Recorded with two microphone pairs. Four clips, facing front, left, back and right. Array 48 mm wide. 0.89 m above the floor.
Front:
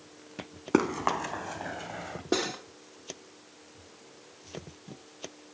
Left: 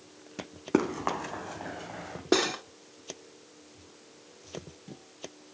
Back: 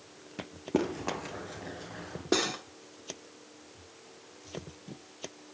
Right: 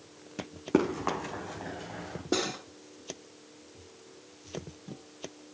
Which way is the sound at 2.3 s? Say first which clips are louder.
Left 5 dB, back 1 dB; 100° left.